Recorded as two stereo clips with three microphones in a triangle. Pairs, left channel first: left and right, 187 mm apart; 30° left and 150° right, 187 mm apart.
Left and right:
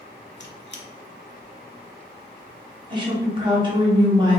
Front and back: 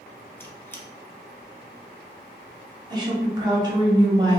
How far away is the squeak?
About 0.7 m.